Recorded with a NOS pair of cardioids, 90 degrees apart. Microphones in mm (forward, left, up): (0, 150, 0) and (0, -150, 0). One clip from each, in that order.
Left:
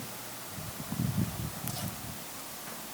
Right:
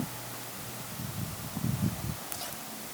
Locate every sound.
Only background noise.